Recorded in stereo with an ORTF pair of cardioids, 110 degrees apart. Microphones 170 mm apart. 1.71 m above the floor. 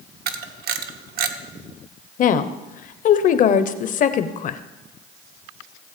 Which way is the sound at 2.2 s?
50° left.